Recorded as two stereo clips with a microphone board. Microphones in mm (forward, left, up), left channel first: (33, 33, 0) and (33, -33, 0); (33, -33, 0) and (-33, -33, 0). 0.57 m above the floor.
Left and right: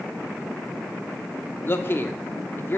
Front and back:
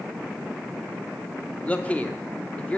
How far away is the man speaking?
About 0.9 m.